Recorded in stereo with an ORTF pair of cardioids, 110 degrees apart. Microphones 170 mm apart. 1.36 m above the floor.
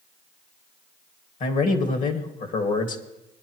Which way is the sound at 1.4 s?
50° left.